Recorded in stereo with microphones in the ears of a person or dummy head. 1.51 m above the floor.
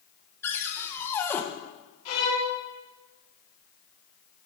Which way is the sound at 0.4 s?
20° left (ahead or behind).